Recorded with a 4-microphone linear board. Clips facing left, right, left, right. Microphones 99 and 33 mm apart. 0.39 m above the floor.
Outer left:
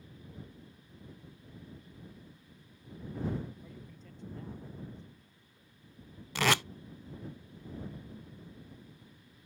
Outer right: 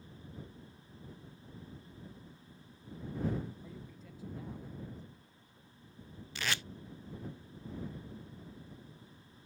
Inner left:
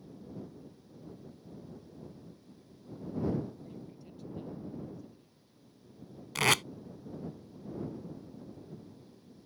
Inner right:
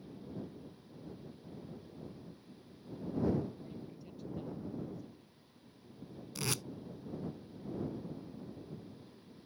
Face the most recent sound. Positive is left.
turn(degrees=85)